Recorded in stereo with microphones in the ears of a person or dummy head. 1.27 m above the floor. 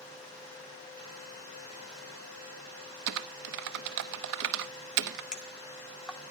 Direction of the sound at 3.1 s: 60° right (ahead or behind).